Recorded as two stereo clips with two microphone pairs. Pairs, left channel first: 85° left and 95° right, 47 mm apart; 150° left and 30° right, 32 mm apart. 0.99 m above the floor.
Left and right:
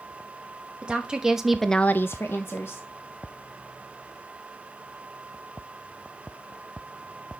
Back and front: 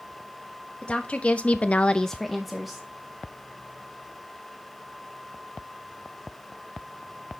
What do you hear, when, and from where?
0.8 s a woman speaking: 160° right, 1.7 m; by 2.9 s 45° left, 1.5 m